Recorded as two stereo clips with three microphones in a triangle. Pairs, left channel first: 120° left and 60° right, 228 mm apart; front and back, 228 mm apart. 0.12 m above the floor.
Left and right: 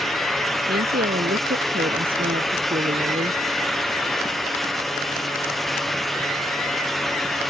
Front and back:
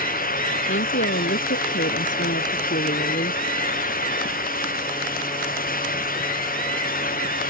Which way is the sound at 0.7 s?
20° right.